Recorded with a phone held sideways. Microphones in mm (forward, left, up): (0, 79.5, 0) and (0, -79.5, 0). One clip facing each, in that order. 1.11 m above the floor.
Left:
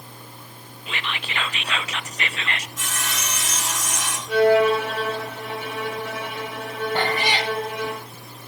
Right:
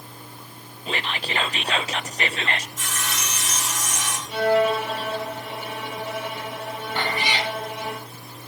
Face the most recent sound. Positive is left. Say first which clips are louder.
# left 2 dB
turn(degrees=45)  # may be behind; listen again after turning